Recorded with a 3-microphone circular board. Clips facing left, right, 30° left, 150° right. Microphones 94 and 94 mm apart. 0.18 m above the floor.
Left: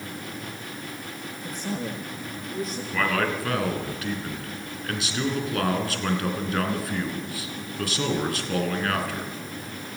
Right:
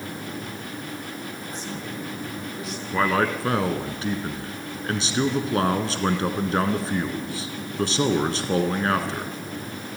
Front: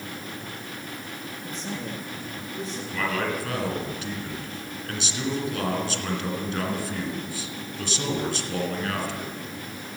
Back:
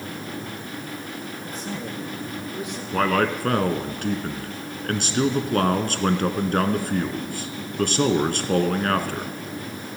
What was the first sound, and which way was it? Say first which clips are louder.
A man speaking: left 2 dB, even; 125° left.